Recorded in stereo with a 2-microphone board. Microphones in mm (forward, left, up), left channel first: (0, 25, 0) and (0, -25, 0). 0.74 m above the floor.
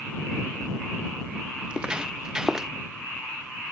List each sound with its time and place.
1.6 s footsteps: 20° right (ahead or behind); by 2.7 s 10° right (ahead or behind)